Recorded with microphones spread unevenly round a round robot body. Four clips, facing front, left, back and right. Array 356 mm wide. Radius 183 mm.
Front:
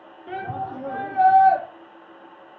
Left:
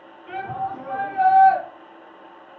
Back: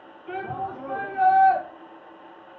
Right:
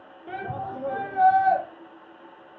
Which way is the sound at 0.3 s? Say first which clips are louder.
Left 4 dB, front 1 dB; 5° right.